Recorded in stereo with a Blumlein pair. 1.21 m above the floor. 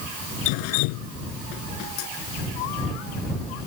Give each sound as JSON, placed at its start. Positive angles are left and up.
{"t": 0.5, "sound": "dripping", "azimuth_deg": 45}